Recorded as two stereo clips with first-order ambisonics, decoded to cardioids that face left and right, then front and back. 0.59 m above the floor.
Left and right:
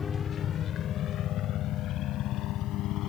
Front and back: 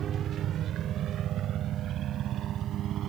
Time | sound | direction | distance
0.0 | a helicopter | 145° left | ?